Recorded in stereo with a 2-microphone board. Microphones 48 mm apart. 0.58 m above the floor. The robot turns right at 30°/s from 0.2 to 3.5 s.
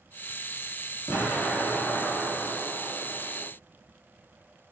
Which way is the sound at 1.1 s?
110° left.